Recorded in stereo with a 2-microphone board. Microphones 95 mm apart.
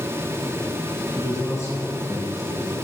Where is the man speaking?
30° left (ahead or behind), 1.6 m; by 2.8 s 35° left (ahead or behind), 2.5 m.